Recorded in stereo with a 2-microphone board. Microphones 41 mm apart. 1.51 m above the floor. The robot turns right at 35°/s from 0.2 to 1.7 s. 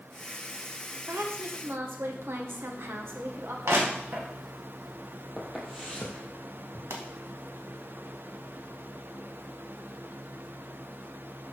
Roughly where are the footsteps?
Centre.